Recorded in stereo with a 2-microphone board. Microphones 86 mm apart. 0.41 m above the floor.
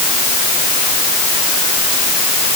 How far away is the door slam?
I don't hear a door slam.